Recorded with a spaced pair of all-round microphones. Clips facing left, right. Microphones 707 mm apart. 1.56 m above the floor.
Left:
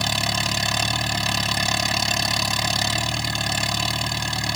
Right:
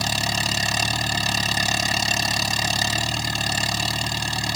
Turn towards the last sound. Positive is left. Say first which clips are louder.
# even
turn(degrees=0)  # may be behind; listen again after turning